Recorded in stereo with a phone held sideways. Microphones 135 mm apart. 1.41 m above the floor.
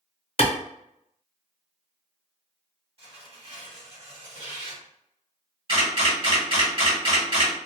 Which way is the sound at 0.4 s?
50° left (ahead or behind).